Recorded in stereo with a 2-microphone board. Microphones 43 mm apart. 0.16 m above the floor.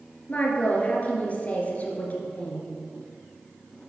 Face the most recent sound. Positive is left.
turn(degrees=35)  # may be behind; listen again after turning